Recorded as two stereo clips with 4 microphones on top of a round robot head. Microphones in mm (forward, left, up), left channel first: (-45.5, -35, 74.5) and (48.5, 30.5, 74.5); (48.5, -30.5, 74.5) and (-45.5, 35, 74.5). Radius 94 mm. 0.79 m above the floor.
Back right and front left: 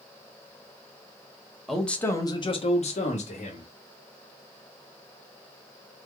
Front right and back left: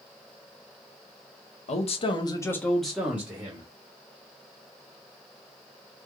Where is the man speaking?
55° right, 1.1 m; by 3.7 s 150° right, 1.6 m.